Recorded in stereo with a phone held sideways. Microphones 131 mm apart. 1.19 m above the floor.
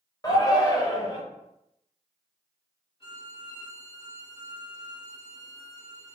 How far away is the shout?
About 1.1 m.